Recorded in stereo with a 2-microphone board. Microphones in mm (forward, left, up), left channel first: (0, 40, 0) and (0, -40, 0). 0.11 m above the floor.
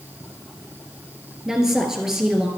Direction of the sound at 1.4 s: 5° right (ahead or behind).